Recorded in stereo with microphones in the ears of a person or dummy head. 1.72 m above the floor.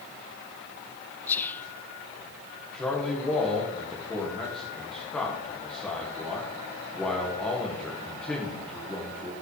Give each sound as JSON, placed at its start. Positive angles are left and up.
{"t": 1.3, "sound": "whispering", "side_deg": 10, "distance_m": 0.5}
{"t": 2.7, "sound": "a man speaking", "side_deg": 10, "distance_m": 1.8}